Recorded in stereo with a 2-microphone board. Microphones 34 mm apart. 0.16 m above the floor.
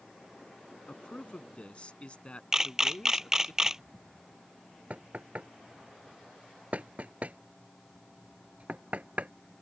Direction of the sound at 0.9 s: 35° left (ahead or behind).